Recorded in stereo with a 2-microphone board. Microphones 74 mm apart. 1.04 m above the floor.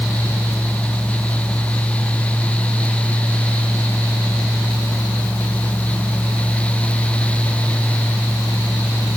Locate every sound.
Only background noise.